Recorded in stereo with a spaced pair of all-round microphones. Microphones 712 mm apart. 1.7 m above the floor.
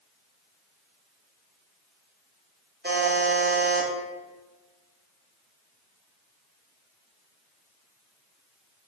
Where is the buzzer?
15° right (ahead or behind), 0.6 m.